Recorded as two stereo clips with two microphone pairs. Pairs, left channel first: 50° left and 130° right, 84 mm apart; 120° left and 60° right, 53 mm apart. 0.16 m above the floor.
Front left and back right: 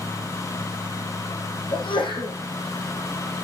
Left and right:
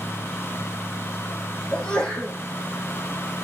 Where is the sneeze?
45° left, 6.5 m.